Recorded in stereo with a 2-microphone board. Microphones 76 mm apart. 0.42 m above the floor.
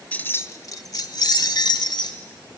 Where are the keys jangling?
20° left (ahead or behind), 0.9 m; by 2.2 s 80° left, 2.5 m.